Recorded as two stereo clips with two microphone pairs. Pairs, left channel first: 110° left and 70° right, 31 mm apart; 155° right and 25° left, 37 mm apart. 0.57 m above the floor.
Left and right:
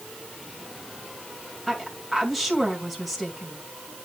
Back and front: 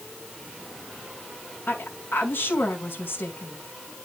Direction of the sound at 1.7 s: 160° right.